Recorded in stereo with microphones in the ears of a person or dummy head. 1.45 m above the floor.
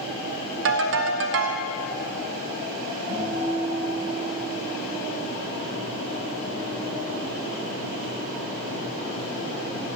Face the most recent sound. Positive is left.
turn(degrees=-75)  # may be behind; listen again after turning